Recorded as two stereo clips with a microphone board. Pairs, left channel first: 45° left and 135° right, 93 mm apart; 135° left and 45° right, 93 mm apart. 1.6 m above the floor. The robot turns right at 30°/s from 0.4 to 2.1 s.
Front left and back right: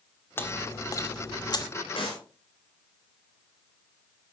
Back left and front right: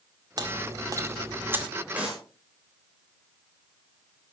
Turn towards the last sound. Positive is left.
turn(degrees=35)